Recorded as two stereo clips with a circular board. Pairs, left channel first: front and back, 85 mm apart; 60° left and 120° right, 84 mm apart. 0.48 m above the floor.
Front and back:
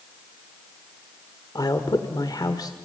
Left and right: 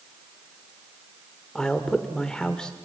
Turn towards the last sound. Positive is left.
turn(degrees=-20)